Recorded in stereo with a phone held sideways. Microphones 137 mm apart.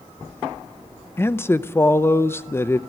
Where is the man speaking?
20° left (ahead or behind), 0.6 m.